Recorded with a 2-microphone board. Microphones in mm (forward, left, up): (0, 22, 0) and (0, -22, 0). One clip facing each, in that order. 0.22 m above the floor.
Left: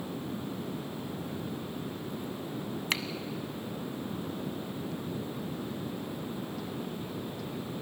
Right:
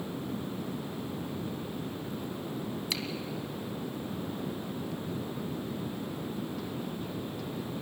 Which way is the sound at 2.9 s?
45° left (ahead or behind).